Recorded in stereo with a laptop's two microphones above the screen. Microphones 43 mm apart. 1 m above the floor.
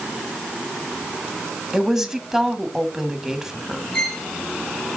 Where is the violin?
10° left (ahead or behind), 2 m.